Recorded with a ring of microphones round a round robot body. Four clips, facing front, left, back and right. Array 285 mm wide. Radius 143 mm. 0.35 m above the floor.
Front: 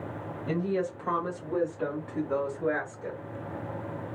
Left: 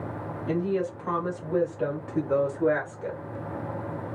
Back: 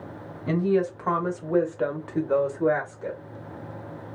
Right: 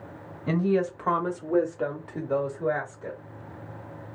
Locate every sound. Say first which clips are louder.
0.5 s a woman speaking: right 3 dB, back 6 dB; 120° right, 1.2 m; by 3.2 s 125° left, 1.1 m